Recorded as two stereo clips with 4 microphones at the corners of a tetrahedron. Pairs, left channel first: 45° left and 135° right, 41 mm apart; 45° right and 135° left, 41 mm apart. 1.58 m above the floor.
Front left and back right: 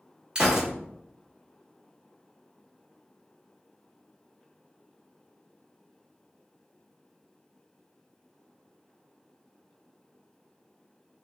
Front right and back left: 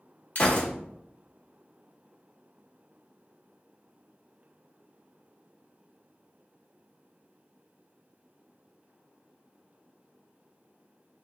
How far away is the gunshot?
About 1.4 m.